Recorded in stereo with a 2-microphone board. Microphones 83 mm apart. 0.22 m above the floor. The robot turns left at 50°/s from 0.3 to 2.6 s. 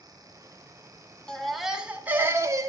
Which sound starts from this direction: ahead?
A baby crying, at 1.3 s.